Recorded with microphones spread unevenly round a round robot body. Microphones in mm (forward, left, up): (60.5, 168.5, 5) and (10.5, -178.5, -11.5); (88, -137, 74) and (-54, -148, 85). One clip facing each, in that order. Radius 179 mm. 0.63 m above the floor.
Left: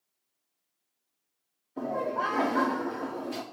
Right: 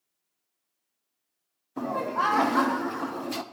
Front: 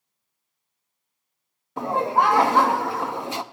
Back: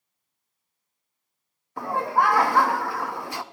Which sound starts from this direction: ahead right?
Laughter, at 1.8 s.